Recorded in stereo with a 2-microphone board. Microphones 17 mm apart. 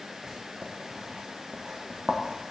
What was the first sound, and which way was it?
Writing, 35° right (ahead or behind).